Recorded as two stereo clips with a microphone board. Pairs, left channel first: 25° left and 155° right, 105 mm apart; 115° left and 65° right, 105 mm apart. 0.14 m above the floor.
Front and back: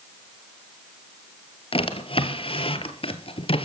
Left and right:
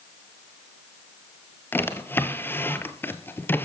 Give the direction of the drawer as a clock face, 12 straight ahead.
11 o'clock.